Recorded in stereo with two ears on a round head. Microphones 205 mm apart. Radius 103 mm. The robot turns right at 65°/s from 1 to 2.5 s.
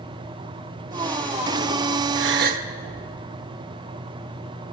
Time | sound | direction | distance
2.1 | a gasp | 60° right (ahead or behind) | 1.4 m